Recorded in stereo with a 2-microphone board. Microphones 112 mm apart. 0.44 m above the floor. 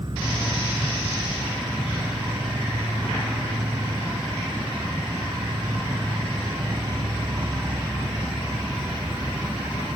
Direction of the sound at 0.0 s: 45° right (ahead or behind).